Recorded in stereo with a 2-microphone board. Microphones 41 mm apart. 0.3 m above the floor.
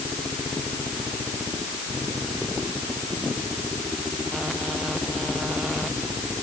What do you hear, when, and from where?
Only background noise.